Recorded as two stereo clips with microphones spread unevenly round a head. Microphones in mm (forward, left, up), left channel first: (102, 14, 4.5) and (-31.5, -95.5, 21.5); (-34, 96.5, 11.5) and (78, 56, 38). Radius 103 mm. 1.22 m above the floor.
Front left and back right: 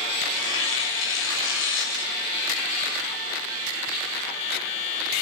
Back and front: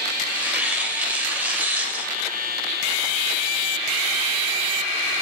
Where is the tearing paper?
60° left, 7 m.